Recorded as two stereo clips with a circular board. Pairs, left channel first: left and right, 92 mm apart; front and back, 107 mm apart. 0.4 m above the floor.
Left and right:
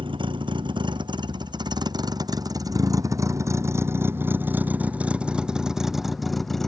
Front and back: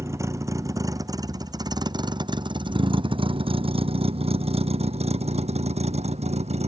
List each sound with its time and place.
0.0 s a vehicle: 115° right; by 6.7 s 175° left